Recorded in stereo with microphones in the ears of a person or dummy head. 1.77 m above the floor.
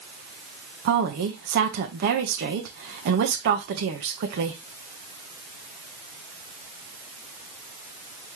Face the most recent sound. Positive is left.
turn(degrees=-60)  # may be behind; listen again after turning